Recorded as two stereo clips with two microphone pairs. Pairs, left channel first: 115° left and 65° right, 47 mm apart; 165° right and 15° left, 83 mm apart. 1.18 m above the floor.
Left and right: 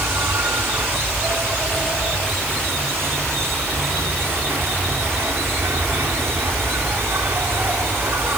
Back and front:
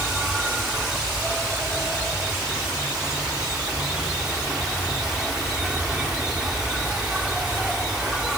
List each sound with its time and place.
0.0 s an insect: 70° right